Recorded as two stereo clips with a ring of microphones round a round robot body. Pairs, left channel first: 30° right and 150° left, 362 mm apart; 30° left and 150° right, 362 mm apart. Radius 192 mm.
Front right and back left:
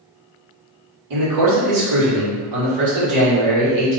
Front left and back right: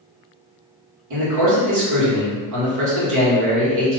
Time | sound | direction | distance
1.1 | a man speaking | 175° left | 1.5 m